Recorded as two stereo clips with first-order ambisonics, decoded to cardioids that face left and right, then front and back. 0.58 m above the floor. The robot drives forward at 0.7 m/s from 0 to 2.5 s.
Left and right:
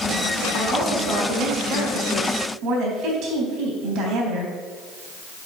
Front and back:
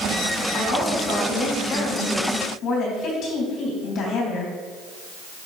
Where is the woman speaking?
35° right, 4.5 m; by 4.5 s 50° right, 3.5 m.